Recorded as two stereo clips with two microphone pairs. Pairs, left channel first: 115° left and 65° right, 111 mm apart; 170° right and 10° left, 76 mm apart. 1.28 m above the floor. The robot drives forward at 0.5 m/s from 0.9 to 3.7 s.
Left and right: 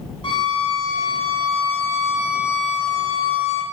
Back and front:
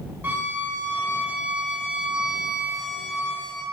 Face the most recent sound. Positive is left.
turn(degrees=110)